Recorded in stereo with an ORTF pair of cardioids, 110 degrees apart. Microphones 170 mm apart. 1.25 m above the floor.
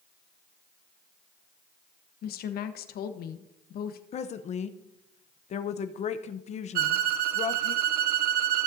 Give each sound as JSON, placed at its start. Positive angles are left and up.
{"t": 2.2, "sound": "a woman speaking", "azimuth_deg": 65, "distance_m": 1.1}
{"t": 4.1, "sound": "a woman speaking", "azimuth_deg": 45, "distance_m": 0.6}
{"t": 6.8, "sound": "a violin", "azimuth_deg": -65, "distance_m": 0.6}